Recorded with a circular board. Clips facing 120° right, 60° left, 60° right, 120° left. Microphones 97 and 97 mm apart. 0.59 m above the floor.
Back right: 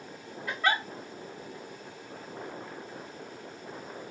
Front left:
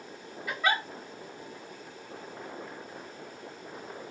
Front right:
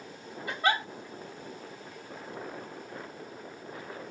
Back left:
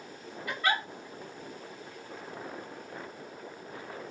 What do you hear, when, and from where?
0.5 s a giggle: 25° right, 1.3 m